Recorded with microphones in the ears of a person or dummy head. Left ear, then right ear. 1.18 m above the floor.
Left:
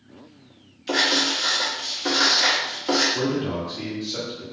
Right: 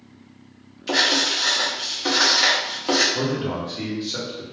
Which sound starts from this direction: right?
A man speaking, at 3.1 s.